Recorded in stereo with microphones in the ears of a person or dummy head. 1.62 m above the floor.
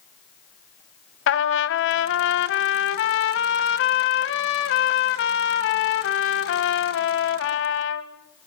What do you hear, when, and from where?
1.3 s a trumpet: 80° left, 1.7 m